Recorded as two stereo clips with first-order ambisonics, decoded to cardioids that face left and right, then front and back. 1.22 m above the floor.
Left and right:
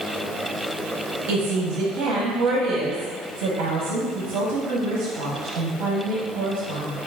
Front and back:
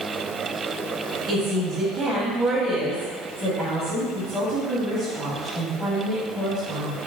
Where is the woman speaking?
100° right, 1.0 m.